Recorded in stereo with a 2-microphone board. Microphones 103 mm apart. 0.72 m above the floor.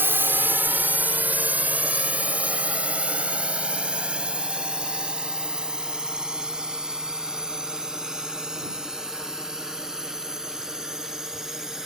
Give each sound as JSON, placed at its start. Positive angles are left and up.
{"t": 0.0, "sound": "a drone", "side_deg": -20}